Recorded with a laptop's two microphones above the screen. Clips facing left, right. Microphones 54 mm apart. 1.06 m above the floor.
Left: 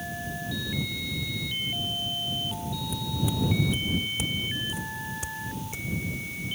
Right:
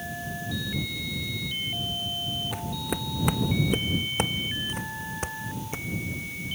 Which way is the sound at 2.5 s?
65° right (ahead or behind).